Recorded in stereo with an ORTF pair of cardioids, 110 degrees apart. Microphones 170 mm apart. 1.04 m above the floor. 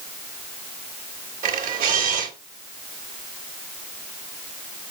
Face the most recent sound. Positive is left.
turn(degrees=-55)